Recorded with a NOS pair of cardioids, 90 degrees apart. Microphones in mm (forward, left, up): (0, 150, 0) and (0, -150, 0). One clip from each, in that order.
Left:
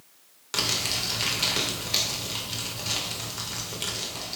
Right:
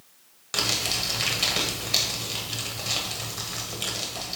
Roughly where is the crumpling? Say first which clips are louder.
Right 1 dB; ahead.